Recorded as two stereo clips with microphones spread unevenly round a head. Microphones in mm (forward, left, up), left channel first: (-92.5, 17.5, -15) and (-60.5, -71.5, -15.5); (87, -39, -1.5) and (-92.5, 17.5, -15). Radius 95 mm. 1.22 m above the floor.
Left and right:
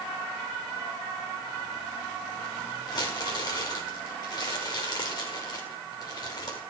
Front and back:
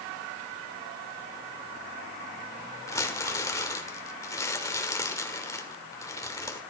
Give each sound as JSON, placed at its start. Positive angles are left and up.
{"t": 2.9, "sound": "crumpling", "azimuth_deg": 55, "distance_m": 1.7}